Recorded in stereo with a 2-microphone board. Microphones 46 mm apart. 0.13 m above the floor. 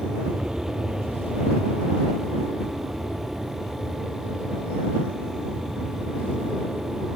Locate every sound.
0.0 s an aircraft: 20° right (ahead or behind)